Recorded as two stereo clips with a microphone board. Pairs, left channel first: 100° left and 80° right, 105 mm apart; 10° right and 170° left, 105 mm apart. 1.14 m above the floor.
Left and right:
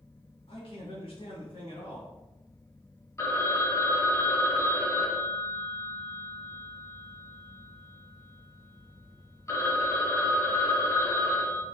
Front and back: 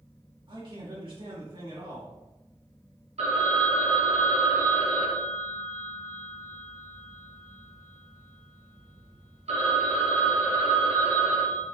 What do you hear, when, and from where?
0.5 s a man speaking: 130° left, 1.8 m
3.2 s a phone ringing: 165° left, 0.8 m